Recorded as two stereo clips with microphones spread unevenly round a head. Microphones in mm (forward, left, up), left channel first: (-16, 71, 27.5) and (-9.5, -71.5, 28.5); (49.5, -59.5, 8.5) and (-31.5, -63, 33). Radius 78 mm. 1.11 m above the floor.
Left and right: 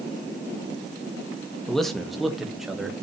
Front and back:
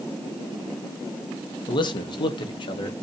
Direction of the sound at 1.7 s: 5° left.